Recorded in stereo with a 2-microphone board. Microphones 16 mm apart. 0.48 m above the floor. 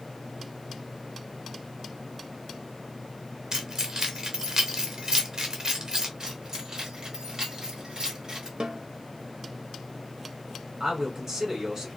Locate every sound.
3.5 s keys jangling: 40° right (ahead or behind), 0.8 m
6.2 s keys jangling: 50° right (ahead or behind), 1.3 m
8.6 s a snare drum: 65° right (ahead or behind), 0.6 m
10.8 s a man speaking: 35° right (ahead or behind), 1.6 m